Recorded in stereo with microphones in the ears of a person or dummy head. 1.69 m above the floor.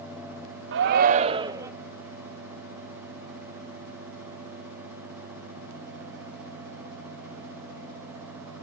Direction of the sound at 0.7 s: 60° right (ahead or behind).